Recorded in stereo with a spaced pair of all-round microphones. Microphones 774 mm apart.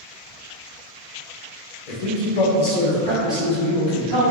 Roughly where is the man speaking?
Left.